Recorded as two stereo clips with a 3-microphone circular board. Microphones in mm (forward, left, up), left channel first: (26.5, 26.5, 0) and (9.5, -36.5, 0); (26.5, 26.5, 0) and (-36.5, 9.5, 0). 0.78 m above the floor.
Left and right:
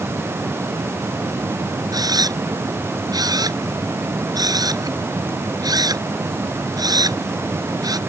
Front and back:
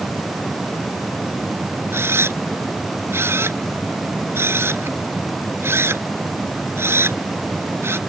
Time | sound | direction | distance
1.9 | a camera shutter | 115° right | ?